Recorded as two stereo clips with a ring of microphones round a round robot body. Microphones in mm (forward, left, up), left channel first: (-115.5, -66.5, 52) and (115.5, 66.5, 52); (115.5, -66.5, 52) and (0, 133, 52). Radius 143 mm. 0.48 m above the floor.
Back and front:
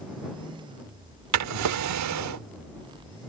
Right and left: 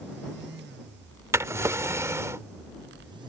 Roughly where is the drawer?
Ahead left.